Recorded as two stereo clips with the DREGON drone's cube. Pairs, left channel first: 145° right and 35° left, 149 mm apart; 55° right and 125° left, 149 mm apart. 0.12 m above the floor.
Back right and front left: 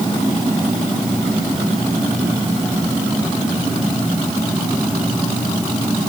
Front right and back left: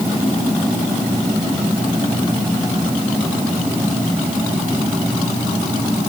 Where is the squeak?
I don't hear a squeak.